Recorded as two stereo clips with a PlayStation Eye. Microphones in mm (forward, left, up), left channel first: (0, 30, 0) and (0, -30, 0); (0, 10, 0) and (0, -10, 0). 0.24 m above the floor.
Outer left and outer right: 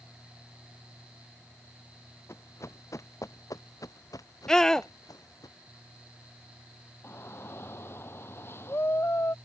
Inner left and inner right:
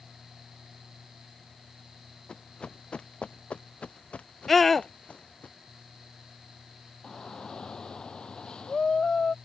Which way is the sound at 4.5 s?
10° left (ahead or behind).